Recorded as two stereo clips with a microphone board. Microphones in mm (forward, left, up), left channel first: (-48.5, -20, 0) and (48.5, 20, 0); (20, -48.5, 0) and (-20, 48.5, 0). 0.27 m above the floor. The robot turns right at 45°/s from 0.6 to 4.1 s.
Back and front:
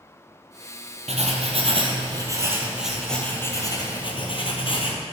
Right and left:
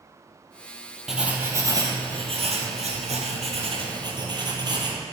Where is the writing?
25° left, 1.6 m; by 5.0 s 160° left, 1.6 m.